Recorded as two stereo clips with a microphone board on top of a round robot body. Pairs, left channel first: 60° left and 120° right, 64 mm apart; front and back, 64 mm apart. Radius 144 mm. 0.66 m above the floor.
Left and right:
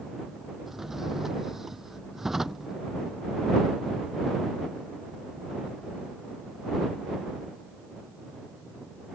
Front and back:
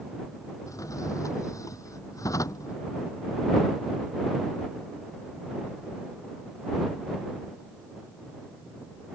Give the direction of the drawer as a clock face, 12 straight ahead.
1 o'clock.